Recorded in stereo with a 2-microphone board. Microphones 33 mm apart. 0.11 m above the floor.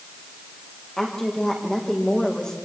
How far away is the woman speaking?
About 6 m.